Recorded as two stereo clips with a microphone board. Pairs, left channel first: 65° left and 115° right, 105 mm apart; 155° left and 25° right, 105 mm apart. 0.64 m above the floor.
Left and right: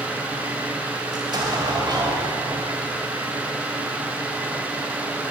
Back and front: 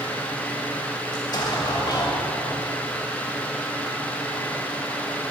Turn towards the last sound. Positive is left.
turn(degrees=-155)